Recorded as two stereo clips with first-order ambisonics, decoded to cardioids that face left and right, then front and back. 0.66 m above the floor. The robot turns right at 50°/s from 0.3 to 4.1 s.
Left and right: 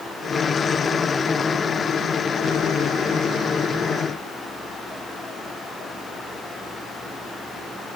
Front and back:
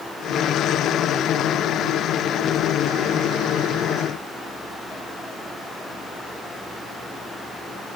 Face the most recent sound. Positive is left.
No sound to turn to.